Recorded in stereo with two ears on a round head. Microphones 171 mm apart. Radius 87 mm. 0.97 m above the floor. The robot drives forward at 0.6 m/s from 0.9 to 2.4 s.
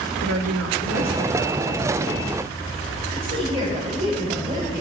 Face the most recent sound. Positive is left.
turn(degrees=-30)  # may be behind; listen again after turning